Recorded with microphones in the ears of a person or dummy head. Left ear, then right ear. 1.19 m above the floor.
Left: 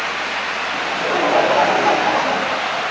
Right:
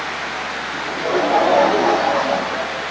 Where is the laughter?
30° left (ahead or behind), 7 m; by 2.8 s 20° left (ahead or behind), 9 m.